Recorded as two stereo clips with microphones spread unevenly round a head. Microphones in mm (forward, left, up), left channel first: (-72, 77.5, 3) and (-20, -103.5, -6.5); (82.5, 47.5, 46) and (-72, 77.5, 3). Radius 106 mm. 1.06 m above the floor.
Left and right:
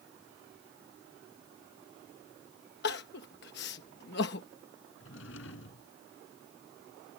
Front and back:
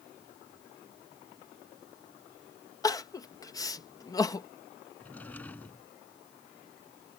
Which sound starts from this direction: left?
A drawer, at 5.0 s.